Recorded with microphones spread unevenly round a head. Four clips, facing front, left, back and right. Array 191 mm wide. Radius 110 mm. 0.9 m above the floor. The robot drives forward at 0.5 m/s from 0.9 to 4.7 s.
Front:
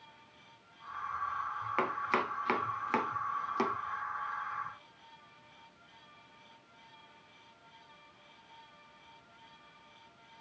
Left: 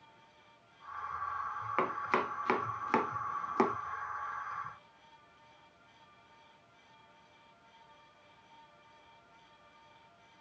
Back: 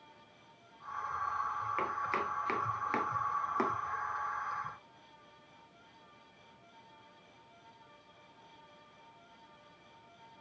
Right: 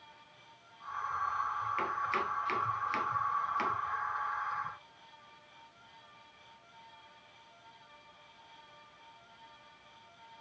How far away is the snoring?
No snoring in this recording.